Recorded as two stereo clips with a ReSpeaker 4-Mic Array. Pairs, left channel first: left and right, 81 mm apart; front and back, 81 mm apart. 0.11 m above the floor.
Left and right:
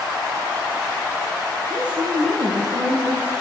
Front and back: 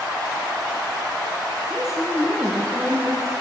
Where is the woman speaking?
100° right, 3 m.